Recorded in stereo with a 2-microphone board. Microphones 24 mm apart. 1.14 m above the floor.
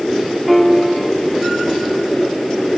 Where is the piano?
Centre (ahead or behind), 2 m.